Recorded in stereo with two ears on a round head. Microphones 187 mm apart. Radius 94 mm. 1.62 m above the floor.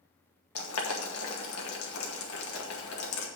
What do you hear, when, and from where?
0.6 s boiling: 75° left (ahead or behind), 2 m